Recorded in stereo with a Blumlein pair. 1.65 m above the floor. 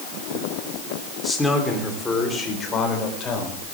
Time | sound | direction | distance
1.2 | a man speaking | 5° left | 4 m